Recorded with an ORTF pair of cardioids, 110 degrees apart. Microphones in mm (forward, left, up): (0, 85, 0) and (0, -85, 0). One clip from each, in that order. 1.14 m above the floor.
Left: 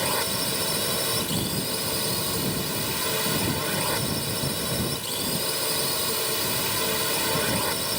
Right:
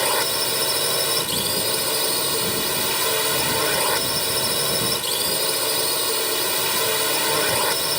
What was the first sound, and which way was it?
A drone, 65° right.